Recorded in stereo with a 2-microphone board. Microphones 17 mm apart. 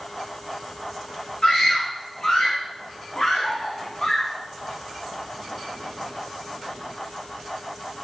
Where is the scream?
40° left (ahead or behind), 8 m.